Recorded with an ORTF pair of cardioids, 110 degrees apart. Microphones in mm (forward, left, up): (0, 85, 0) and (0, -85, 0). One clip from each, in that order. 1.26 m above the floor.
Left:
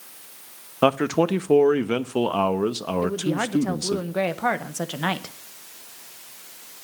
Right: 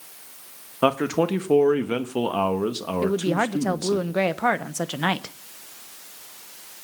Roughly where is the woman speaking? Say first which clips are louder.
Right 4 dB; ahead right.